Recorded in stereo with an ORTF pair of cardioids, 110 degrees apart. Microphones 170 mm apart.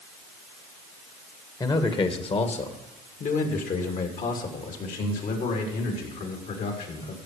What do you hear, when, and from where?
1.6 s a man speaking: 25° left, 1.6 m; by 7.2 s 60° left, 5 m